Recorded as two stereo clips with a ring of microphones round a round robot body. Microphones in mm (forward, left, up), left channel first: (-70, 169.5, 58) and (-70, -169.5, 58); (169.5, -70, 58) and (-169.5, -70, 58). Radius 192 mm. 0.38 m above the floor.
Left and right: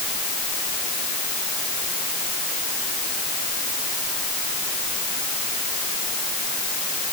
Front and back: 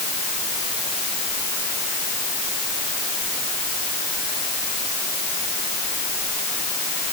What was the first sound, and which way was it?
Only background noise.